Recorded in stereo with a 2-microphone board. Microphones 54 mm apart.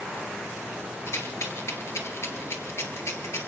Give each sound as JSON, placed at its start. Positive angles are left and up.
{"t": 1.1, "sound": "a rattle", "side_deg": 55, "distance_m": 1.6}